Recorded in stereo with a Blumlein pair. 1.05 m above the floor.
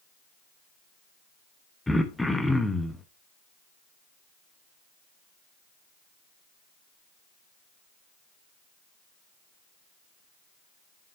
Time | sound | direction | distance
1.9 | throat clearing | 5° left | 0.9 m